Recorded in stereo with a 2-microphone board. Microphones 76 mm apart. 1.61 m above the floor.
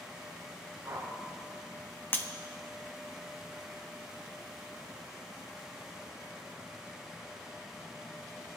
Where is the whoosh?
45° right (ahead or behind), 2.5 m.